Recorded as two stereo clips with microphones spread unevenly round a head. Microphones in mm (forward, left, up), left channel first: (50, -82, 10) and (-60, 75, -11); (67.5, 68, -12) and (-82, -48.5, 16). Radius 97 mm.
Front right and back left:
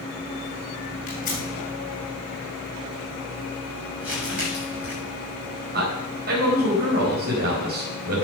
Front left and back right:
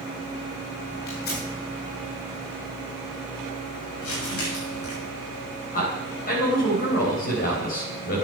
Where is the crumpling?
40° left, 6.5 m.